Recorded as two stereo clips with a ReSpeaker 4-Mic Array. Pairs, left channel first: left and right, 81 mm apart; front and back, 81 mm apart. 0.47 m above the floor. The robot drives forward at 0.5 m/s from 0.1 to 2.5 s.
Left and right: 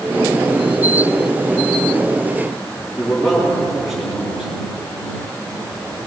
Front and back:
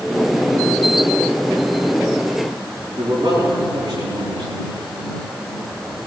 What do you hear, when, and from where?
3.0 s a man speaking: 175° right, 8 m